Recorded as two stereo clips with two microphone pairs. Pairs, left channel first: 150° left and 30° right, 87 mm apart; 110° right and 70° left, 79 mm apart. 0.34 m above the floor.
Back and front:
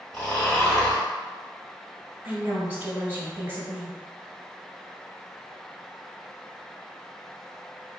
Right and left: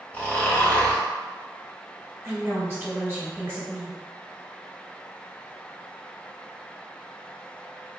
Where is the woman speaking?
20° left, 1.5 m.